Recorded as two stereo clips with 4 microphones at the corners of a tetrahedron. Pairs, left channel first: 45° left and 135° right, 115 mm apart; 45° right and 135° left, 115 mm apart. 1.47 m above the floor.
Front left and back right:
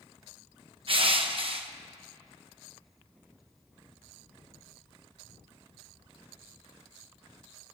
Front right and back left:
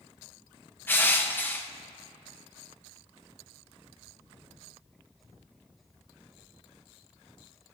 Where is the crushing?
115° right, 0.8 m.